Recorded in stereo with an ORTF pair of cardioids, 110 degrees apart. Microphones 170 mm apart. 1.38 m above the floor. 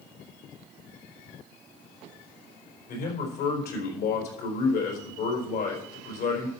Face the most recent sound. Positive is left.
turn(degrees=60)